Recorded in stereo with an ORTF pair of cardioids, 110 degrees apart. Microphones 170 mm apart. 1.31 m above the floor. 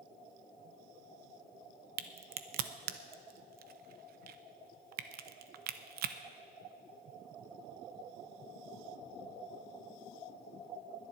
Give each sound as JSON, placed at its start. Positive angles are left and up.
{"t": 2.0, "sound": "a crack", "azimuth_deg": -65, "distance_m": 0.9}